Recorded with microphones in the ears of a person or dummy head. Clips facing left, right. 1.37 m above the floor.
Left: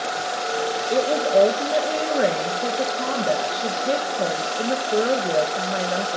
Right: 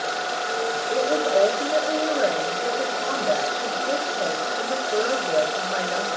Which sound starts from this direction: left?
A woman speaking, at 0.9 s.